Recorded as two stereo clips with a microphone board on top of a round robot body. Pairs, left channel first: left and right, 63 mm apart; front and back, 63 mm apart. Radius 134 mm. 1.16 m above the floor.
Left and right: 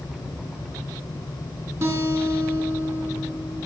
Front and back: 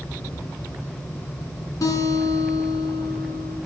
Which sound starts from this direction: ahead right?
A guitar, at 1.8 s.